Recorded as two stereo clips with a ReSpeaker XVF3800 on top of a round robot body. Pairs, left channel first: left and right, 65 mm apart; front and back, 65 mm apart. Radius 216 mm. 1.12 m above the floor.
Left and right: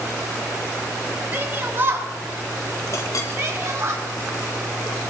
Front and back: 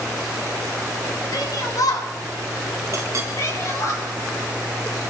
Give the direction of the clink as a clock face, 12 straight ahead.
8 o'clock.